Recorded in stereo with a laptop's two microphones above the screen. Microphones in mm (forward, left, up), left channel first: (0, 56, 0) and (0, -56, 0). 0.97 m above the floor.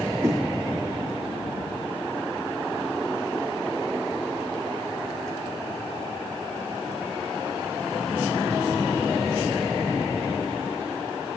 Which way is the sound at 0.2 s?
25° right (ahead or behind).